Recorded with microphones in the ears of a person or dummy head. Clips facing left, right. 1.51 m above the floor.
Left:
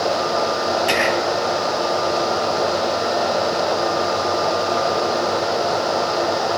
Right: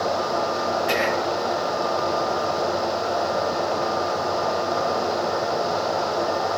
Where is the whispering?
50° left (ahead or behind), 1.8 m.